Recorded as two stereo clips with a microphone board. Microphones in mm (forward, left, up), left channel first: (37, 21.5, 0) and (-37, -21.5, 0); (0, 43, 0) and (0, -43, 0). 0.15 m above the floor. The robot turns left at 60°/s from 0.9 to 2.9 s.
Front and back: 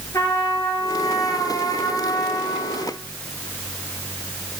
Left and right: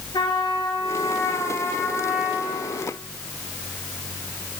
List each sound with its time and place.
0.1 s a trumpet: 75° left, 3 m; by 2.9 s 45° right, 3 m